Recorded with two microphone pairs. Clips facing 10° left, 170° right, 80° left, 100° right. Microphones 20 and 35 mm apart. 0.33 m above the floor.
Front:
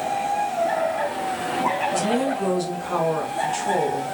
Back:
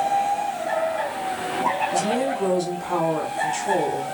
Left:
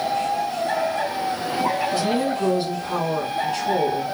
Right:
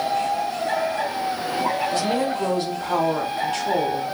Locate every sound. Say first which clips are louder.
1.9 s a woman speaking: even, even; 85° right, 1.7 m